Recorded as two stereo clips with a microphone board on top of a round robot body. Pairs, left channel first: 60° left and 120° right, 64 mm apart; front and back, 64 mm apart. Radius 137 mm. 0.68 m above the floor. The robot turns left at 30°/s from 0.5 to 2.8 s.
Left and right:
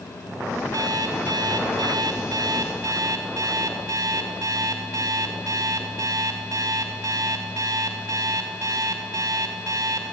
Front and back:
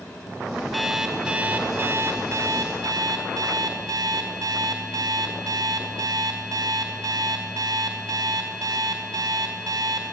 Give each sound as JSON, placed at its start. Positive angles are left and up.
{"t": 0.7, "sound": "an alarm clock", "azimuth_deg": -90, "distance_m": 2.0}